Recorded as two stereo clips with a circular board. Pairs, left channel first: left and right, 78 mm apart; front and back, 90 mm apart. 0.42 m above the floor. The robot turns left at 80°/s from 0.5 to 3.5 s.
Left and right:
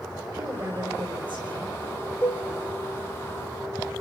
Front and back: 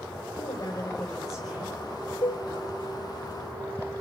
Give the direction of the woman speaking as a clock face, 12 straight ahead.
1 o'clock.